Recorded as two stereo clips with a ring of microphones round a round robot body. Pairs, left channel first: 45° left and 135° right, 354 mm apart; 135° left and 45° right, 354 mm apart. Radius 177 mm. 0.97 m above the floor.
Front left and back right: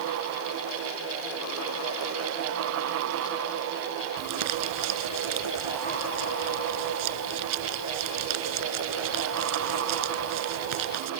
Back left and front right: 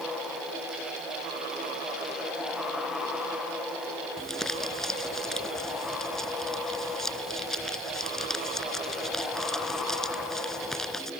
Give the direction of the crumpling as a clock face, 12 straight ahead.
5 o'clock.